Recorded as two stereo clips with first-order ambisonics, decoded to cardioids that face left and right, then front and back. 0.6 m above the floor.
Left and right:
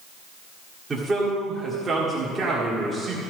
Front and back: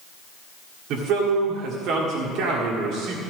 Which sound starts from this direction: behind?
A man speaking, at 0.9 s.